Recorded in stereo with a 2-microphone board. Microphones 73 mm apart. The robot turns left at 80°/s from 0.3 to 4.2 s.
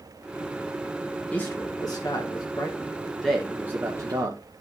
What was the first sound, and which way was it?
A man speaking, 160° left.